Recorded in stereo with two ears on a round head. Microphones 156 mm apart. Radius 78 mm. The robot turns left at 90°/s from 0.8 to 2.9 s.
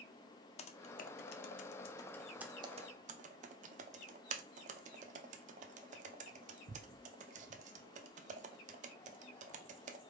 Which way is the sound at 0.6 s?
35° left (ahead or behind).